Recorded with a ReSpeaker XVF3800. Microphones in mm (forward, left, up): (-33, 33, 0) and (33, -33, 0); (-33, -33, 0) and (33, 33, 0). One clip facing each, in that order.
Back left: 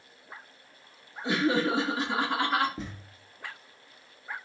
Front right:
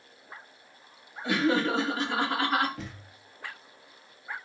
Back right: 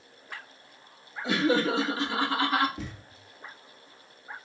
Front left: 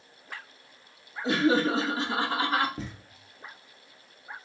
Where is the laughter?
75° left, 1.4 m; by 2.7 s 25° left, 1.1 m.